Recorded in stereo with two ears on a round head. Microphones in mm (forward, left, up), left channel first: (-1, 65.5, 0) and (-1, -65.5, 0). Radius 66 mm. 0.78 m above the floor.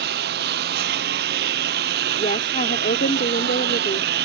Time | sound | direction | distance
0.0 | a lawn mower | 80° right | ?
2.2 | a woman speaking | 60° left (ahead or behind) | ?